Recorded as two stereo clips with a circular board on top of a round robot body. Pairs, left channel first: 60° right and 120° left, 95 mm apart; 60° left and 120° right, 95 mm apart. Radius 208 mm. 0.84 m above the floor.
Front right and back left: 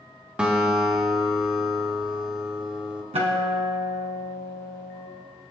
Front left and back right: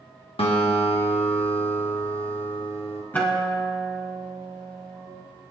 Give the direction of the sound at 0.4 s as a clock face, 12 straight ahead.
11 o'clock.